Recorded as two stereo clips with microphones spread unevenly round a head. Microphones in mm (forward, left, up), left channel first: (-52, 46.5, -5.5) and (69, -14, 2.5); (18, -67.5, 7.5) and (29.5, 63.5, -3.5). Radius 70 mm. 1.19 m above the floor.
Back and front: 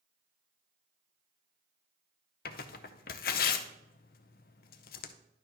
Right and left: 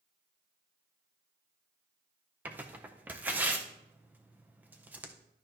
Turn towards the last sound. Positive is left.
turn(degrees=160)